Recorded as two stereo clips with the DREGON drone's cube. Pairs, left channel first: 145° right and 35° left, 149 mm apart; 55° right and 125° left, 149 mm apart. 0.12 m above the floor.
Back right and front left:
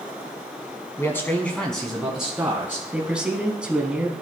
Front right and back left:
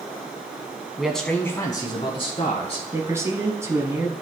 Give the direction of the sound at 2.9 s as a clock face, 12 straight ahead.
9 o'clock.